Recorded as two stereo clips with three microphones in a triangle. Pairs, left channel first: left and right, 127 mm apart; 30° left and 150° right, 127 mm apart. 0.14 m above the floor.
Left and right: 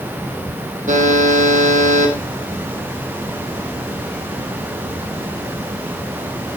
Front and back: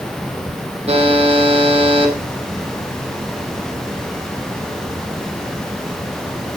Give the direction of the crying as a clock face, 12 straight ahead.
I don't hear crying.